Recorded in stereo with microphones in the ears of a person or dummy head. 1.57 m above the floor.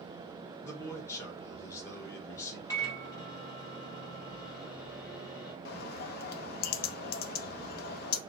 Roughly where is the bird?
Left.